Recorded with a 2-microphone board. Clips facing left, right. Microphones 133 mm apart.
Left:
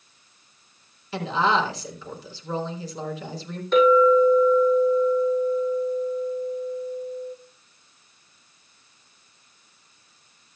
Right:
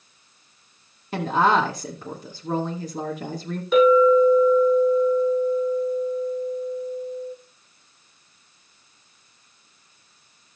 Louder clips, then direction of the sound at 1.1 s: Right 3 dB; 50° right (ahead or behind).